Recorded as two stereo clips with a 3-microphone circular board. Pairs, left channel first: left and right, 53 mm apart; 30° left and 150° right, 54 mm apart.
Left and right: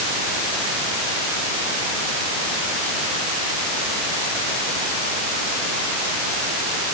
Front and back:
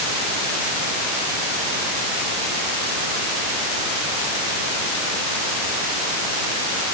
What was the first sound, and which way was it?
Only background noise.